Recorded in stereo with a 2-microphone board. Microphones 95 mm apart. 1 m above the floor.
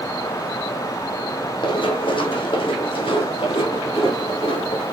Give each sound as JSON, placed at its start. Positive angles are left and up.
{"t": 1.6, "sound": "running footsteps", "side_deg": 60, "distance_m": 1.9}